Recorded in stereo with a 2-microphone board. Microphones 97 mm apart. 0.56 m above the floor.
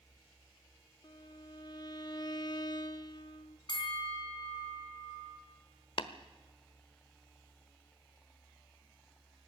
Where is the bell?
50° left (ahead or behind), 3 m.